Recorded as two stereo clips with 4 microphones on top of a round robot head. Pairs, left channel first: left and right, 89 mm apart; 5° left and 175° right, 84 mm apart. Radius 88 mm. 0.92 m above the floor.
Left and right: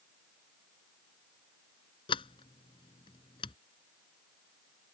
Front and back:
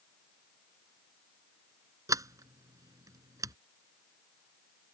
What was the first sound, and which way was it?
A sliding door, 135° left.